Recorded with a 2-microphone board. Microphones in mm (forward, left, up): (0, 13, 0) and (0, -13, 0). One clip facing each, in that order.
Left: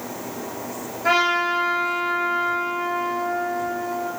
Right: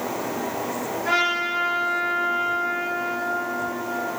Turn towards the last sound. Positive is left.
turn(degrees=75)  # may be behind; listen again after turning